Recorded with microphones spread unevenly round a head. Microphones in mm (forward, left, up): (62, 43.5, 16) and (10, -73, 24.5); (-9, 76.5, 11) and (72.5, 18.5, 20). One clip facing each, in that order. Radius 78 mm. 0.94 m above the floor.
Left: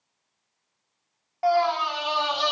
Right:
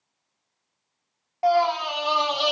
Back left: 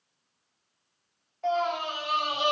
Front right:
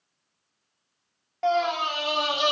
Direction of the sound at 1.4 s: 45° right.